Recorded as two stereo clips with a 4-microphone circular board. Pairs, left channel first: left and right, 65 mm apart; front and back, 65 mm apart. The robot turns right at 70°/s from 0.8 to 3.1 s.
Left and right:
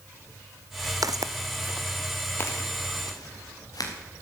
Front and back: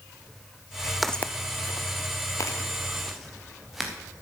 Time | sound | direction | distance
1.0 | footsteps | 90° right | 0.6 m